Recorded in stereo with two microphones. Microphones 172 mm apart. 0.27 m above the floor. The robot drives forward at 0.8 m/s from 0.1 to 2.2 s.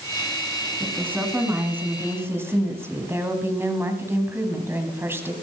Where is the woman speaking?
10° right (ahead or behind), 3 m; by 5.3 s 15° right (ahead or behind), 2 m.